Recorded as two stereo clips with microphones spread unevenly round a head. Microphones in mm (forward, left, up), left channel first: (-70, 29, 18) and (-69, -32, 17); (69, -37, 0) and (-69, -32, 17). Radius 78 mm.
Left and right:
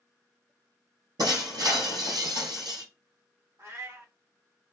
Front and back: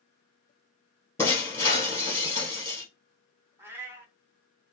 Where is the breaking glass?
75° right, 1.7 m.